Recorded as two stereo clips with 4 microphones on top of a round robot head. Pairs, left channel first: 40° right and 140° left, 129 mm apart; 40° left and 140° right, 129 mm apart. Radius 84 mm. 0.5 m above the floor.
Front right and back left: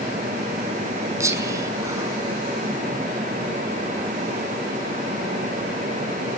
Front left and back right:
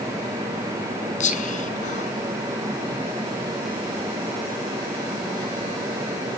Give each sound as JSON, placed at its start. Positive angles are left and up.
{"t": 1.2, "sound": "whispering", "azimuth_deg": 70, "distance_m": 6.0}